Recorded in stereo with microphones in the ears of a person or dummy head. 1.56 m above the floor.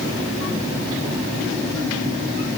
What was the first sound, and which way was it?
Only background noise.